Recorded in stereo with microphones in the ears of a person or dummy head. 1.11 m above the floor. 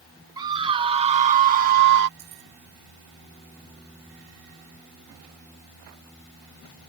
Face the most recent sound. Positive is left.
turn(degrees=-45)  # may be behind; listen again after turning